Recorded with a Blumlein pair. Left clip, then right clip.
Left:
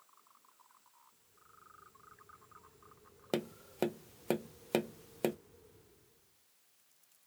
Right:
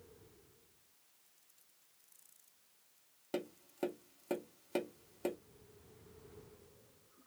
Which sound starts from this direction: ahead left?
Tapping, at 3.3 s.